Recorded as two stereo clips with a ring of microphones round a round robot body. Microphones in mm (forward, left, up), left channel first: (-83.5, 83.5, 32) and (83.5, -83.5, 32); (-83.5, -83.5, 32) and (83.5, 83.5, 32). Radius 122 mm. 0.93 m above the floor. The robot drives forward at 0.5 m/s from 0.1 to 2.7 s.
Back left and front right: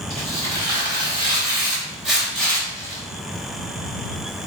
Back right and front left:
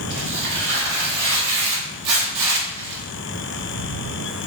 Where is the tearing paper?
20° left, 1.9 m; by 3.0 s 55° left, 0.9 m.